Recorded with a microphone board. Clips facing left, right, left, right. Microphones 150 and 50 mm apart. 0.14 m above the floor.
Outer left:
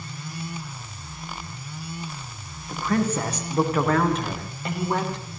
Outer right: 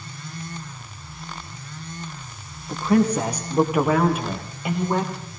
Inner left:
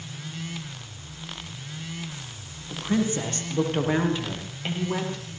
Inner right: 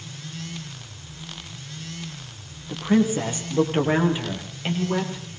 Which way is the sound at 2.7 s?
15° right (ahead or behind).